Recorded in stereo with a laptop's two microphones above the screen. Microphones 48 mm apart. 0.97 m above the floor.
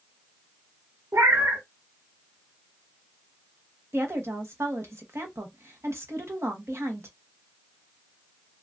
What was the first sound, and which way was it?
A cat meowing, 75° right (ahead or behind).